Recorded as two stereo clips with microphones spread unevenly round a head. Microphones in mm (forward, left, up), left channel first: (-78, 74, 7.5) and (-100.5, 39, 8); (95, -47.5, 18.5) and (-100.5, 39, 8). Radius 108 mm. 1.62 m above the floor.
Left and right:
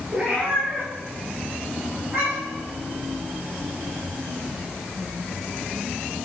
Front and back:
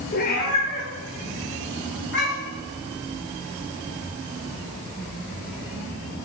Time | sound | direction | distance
0.1 | a cat meowing | 55° right | 2.5 m